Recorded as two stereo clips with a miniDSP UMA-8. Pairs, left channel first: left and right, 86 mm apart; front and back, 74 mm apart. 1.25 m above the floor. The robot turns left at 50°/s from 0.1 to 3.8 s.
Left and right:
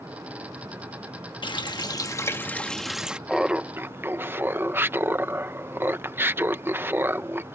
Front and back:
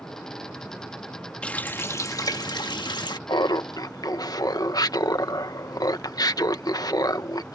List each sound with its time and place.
1.4 s a running tap: 75° left; by 3.2 s 15° right
3.3 s laughter: 5° right; by 7.5 s 30° right